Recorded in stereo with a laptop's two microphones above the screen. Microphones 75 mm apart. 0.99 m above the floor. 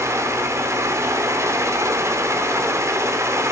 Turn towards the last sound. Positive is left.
turn(degrees=-45)  # may be behind; listen again after turning